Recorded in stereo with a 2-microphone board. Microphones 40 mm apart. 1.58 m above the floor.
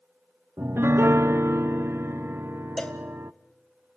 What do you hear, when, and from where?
0.6 s a piano: 75° right (ahead or behind), 0.7 m
2.8 s a cowbell: 15° left (ahead or behind), 1.7 m